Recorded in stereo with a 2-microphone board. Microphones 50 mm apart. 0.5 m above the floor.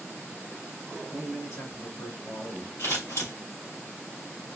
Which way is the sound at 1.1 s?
65° left (ahead or behind).